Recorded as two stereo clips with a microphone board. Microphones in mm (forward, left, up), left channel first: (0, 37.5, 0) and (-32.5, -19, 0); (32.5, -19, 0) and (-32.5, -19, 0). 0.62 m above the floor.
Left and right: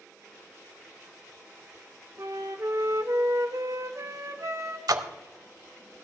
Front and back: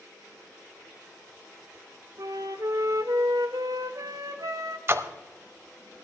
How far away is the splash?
About 0.8 m.